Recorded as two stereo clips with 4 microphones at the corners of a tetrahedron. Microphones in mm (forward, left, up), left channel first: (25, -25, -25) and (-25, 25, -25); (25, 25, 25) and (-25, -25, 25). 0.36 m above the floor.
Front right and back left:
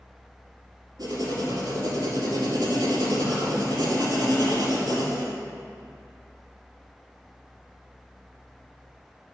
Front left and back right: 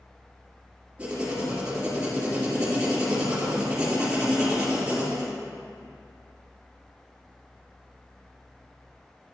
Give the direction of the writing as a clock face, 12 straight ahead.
7 o'clock.